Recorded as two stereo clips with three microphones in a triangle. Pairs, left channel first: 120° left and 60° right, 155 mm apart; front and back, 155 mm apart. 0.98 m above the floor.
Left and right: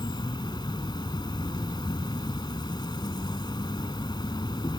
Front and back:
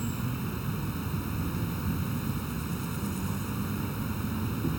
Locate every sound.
0.0 s an insect: 90° left